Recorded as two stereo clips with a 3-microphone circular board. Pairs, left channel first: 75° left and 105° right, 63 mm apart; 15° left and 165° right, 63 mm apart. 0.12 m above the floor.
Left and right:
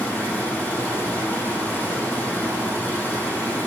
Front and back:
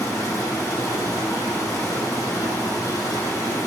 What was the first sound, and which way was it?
Running water, 20° left.